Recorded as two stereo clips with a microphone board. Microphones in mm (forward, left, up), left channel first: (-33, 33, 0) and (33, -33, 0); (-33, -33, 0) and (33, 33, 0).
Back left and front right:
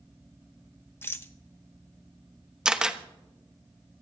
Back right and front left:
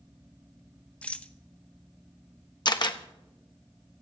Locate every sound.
1.0 s a rattle: 165° left, 0.8 m
2.6 s a camera shutter: 125° right, 1.0 m